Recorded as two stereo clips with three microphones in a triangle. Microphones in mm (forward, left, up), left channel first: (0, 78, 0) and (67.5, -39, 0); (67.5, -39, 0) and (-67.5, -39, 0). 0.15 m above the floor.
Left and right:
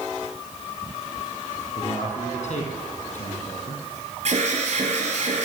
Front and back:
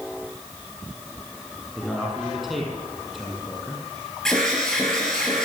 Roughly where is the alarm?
Right.